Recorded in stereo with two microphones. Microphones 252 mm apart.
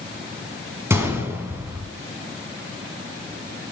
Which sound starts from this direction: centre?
A gunshot, at 0.9 s.